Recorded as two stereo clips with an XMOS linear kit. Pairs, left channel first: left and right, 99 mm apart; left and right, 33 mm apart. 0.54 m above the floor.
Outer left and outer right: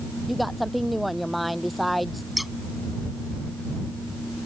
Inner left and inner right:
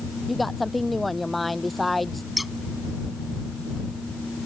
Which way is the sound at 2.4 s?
Centre (ahead or behind).